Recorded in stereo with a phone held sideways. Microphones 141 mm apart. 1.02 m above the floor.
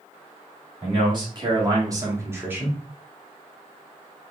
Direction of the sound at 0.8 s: 35° right (ahead or behind).